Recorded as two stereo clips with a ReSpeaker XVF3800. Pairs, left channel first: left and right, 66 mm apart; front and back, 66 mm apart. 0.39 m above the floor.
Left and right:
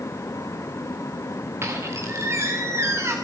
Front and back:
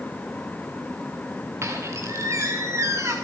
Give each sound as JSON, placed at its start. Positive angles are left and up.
{"t": 1.6, "sound": "a squeak", "azimuth_deg": -135, "distance_m": 4.0}